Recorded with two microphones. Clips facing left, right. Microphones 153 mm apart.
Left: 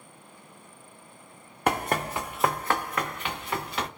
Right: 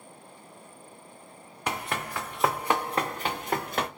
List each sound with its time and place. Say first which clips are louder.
1.7 s running footsteps: left 6 dB; 50° left (ahead or behind), 0.6 m; by 3.9 s 45° right (ahead or behind), 1.1 m